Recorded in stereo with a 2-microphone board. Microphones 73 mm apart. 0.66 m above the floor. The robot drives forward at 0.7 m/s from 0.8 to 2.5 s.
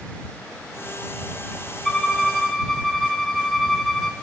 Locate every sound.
1.9 s a violin: 5° left (ahead or behind), 2 m